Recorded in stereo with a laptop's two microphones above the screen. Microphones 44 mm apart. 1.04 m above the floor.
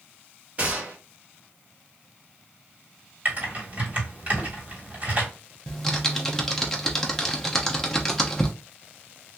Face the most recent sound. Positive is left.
turn(degrees=10)  # may be behind; listen again after turning